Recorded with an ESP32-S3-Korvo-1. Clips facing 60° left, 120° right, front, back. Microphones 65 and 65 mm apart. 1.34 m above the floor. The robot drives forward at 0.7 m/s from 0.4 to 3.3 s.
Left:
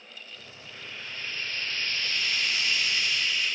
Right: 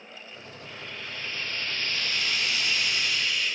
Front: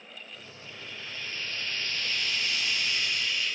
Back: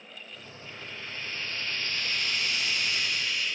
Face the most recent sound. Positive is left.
turn(degrees=-145)